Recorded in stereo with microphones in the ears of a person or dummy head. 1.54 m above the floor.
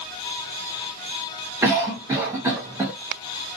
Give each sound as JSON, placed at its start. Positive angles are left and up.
{"t": 1.6, "sound": "a cough", "side_deg": -15, "distance_m": 0.9}